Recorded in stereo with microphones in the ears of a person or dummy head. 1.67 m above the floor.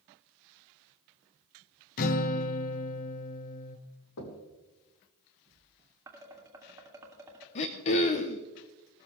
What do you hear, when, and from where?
2.0 s a guitar: 45° left (ahead or behind), 0.9 m
4.2 s knocking: 80° left, 2.5 m
6.1 s dishes clattering: 15° right (ahead or behind), 2.5 m
7.5 s throat clearing: 30° left (ahead or behind), 0.8 m